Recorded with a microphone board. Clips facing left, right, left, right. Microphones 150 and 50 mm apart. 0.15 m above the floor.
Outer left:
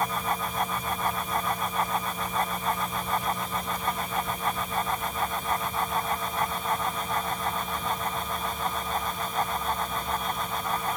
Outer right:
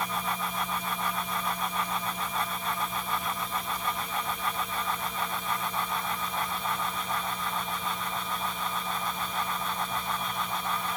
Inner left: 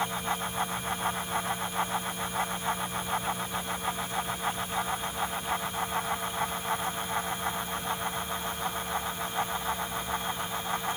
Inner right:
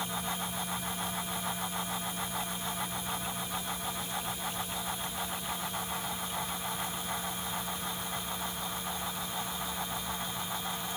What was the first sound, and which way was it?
Only background noise.